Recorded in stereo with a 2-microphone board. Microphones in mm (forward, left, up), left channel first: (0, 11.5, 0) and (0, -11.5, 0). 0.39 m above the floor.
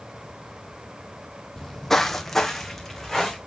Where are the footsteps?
20° left (ahead or behind), 0.7 m; by 3.4 s 10° left (ahead or behind), 2.0 m.